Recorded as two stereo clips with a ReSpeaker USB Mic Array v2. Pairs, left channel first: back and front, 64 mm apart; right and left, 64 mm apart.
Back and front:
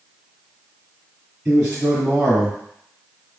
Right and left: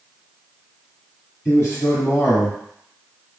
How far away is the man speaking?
About 2 m.